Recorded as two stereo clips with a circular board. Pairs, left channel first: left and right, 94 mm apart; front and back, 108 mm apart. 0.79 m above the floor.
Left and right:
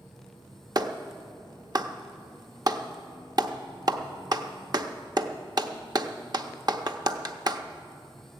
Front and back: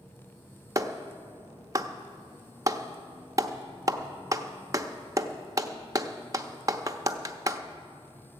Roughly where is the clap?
Behind right.